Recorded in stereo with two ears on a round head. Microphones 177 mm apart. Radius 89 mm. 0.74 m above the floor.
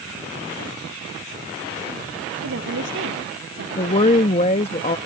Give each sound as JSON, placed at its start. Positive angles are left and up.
{"t": 2.4, "sound": "a woman speaking", "side_deg": -70}
{"t": 3.8, "sound": "a woman speaking", "side_deg": 30}